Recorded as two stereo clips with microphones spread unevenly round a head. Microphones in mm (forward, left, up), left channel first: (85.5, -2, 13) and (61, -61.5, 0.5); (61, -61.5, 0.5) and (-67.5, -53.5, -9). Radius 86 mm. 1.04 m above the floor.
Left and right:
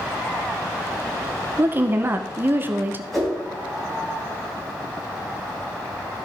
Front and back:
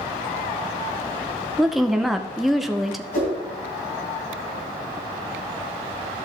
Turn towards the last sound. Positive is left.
turn(degrees=-20)